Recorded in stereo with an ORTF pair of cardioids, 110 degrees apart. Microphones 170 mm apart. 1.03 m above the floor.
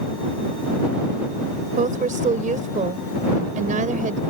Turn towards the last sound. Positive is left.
turn(degrees=-50)